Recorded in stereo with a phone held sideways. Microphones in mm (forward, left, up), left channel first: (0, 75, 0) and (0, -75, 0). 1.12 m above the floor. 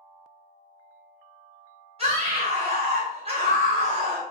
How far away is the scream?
About 0.9 m.